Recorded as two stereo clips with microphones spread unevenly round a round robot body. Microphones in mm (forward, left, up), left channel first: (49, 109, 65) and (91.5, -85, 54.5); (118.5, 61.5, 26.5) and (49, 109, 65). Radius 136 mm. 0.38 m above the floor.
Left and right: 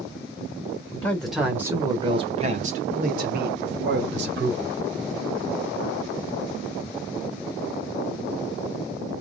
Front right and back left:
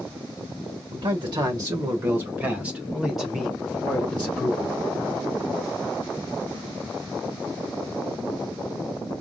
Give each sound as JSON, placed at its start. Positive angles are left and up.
{"t": 0.9, "sound": "a man speaking", "azimuth_deg": 180, "distance_m": 1.2}